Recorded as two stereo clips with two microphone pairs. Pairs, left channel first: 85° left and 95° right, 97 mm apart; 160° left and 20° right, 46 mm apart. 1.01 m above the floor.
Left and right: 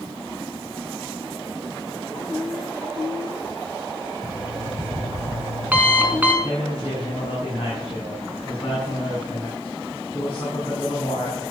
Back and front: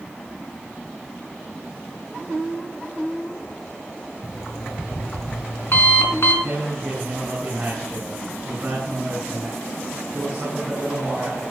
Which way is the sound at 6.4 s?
50° left.